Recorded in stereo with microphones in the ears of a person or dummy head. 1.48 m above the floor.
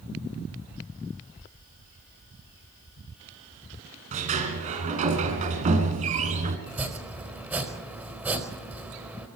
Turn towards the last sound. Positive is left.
turn(degrees=-10)  # may be behind; listen again after turning